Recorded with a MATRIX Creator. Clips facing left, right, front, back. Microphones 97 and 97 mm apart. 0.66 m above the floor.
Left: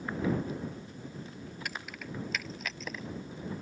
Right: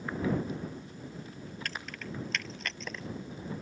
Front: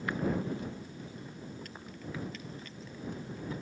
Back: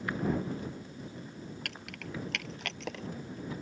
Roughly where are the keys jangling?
Behind.